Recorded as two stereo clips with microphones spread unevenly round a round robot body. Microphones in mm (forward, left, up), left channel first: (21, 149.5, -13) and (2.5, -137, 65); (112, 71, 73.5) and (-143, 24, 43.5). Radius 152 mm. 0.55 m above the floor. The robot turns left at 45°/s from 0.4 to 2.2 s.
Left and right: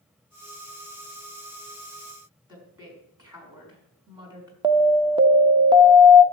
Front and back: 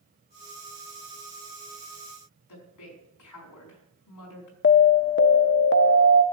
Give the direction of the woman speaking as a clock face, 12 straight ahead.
12 o'clock.